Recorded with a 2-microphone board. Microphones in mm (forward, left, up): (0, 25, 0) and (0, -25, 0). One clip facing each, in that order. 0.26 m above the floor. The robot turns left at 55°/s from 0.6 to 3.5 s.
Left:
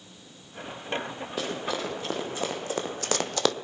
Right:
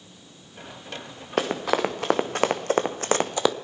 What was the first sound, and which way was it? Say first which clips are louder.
Running footsteps: right 8 dB; 60° right (ahead or behind).